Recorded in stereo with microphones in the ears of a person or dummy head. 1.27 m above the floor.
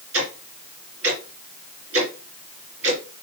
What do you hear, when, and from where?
0.1 s ticking: 65° right (ahead or behind), 2.5 m